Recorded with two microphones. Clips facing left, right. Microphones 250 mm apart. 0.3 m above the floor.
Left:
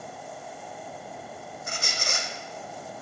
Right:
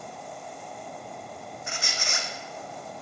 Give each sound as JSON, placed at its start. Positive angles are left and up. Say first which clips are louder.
{"t": 1.7, "sound": "a squeak", "louder": "left 3 dB", "side_deg": 45, "distance_m": 0.6}